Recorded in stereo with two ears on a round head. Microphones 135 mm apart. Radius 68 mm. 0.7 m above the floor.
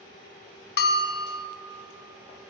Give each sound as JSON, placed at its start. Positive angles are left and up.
{"t": 0.8, "sound": "a bell", "side_deg": 80, "distance_m": 0.9}